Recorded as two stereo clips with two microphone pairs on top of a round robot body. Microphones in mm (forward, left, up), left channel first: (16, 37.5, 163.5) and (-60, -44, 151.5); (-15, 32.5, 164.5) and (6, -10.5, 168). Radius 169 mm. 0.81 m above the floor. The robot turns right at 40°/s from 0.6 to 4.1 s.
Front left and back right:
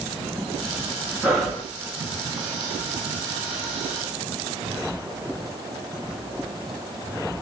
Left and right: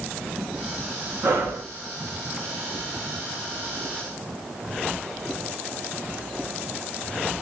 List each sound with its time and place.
1.2 s breathing: 50° right, 2.0 m; by 1.6 s 35° right, 2.0 m